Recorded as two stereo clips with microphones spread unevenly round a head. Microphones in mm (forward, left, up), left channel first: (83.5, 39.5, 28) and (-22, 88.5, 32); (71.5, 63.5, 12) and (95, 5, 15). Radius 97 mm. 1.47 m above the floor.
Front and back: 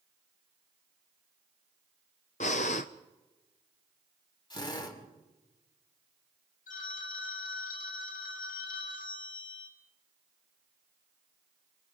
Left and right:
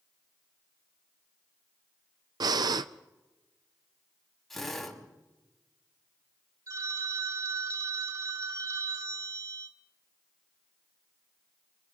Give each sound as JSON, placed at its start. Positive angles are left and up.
{"t": 2.4, "sound": "breathing", "azimuth_deg": -80, "distance_m": 0.5}
{"t": 4.5, "sound": "a drill", "azimuth_deg": 25, "distance_m": 6.0}
{"t": 6.7, "sound": "a phone ringing", "azimuth_deg": -50, "distance_m": 1.4}